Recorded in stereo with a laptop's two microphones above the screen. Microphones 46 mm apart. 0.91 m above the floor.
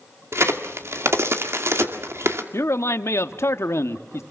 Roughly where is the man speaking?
Left.